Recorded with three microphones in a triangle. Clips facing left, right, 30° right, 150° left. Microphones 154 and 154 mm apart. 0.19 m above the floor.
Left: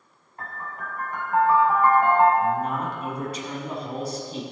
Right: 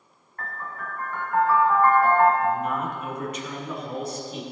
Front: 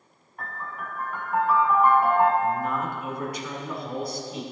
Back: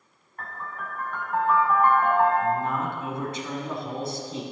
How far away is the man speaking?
About 1.5 m.